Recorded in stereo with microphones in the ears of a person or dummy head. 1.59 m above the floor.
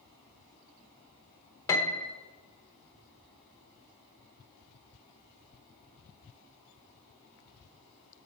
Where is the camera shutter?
No camera shutter in this recording.